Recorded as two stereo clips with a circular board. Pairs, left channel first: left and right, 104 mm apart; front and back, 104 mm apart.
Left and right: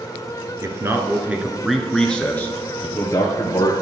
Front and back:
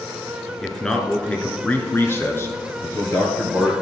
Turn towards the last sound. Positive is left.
turn(degrees=50)